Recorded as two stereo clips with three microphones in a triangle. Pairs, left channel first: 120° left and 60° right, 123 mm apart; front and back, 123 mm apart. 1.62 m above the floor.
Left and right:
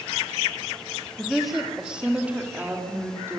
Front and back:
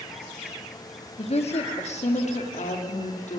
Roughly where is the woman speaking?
Ahead left.